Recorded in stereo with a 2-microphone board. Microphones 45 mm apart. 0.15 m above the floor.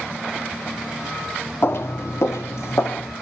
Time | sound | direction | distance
1.6 | footsteps | 50° left (ahead or behind) | 0.6 m